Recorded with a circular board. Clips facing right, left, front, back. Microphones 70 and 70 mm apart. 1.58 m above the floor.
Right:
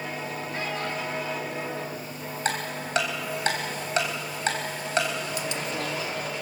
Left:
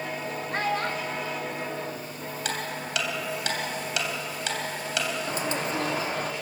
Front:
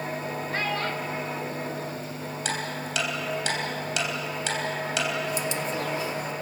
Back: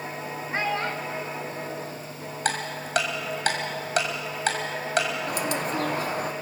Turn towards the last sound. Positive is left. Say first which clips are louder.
# left 2 dB, back 1 dB
turn(degrees=145)